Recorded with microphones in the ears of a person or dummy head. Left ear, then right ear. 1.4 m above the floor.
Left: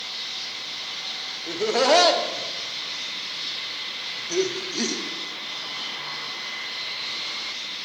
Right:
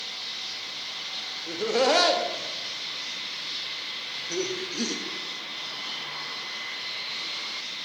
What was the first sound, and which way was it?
Laughter, 10° left (ahead or behind).